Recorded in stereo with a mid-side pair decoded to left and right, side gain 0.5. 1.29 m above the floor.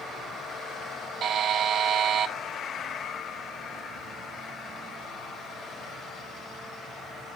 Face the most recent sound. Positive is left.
turn(degrees=-60)